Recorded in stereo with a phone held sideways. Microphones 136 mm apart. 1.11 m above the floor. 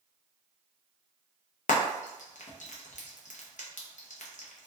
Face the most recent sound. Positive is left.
turn(degrees=65)  # may be behind; listen again after turning